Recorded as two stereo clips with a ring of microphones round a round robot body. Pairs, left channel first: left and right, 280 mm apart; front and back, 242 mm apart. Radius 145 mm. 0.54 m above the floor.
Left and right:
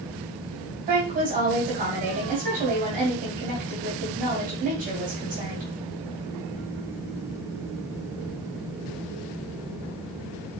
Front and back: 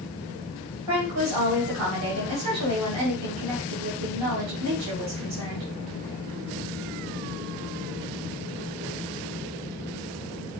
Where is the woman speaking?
155° right, 3.5 m.